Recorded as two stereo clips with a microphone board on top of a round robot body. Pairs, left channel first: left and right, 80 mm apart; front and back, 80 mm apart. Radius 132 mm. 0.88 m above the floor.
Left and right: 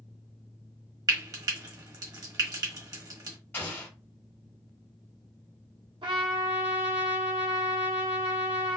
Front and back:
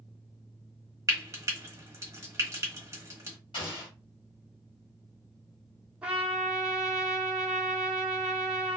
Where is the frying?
130° right, 1.3 m.